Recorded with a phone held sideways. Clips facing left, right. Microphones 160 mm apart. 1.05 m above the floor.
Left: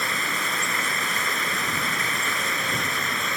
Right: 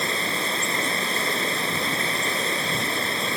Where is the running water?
30° right (ahead or behind).